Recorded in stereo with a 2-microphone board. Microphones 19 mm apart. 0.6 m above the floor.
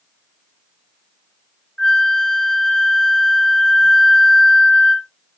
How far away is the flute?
About 1.8 m.